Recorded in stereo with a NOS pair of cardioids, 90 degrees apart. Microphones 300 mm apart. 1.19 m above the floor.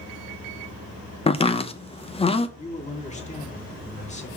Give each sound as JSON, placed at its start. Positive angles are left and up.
{"t": 1.3, "sound": "chopping", "azimuth_deg": 20, "distance_m": 0.8}
{"t": 2.6, "sound": "a man speaking", "azimuth_deg": 25, "distance_m": 2.5}